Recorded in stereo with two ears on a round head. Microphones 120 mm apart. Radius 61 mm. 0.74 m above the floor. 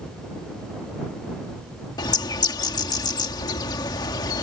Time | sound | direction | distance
2.0 | a bird | 30° left (ahead or behind) | ?